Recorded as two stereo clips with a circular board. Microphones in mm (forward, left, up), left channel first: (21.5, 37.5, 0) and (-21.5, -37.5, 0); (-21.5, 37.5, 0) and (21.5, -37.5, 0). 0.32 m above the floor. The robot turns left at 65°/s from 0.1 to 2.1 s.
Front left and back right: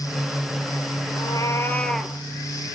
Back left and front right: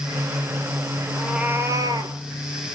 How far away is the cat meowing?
About 0.8 m.